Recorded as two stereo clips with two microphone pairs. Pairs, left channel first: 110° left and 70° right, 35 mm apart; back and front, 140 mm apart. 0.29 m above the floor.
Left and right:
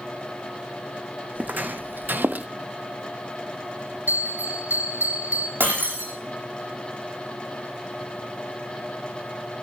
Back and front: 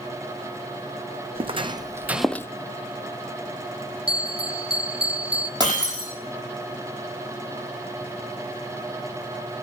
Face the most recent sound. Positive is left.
turn(degrees=-60)